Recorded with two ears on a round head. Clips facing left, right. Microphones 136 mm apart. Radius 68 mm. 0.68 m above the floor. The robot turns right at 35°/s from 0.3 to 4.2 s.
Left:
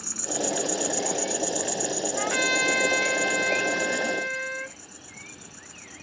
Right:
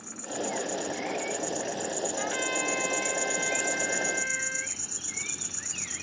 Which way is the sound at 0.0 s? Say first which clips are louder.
Left 4 dB; 100° left.